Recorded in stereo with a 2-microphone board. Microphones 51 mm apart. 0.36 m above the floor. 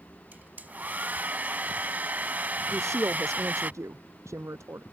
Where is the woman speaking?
80° right.